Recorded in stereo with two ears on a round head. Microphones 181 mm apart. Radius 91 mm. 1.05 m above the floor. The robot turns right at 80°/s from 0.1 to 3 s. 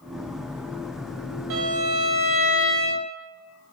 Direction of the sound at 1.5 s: 70° right.